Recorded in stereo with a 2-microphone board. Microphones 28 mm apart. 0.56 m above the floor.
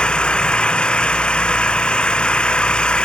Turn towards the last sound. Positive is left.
turn(degrees=35)  # may be behind; listen again after turning